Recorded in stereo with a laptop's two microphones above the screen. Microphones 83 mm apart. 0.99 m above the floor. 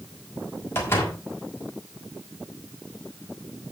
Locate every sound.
0.8 s a door slam: 30° left (ahead or behind), 5 m